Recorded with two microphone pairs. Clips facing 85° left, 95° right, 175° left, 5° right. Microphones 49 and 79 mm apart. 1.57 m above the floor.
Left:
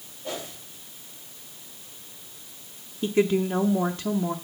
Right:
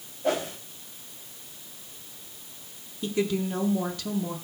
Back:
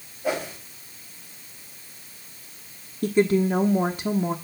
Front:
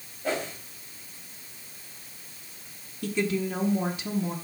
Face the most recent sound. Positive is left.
turn(degrees=135)